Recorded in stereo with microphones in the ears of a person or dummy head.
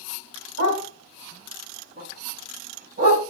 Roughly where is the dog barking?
Right.